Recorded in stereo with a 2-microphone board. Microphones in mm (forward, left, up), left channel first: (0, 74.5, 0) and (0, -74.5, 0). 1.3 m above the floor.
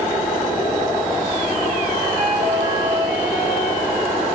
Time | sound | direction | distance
2.1 | a flute | 85° left | 7 m